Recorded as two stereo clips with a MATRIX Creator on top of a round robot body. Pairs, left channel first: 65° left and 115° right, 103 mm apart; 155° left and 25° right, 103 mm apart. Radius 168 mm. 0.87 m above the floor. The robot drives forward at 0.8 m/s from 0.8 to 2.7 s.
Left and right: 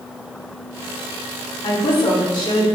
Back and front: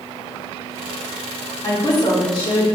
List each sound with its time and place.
1.6 s a woman speaking: 100° left, 2.5 m; by 2.7 s 120° left, 3 m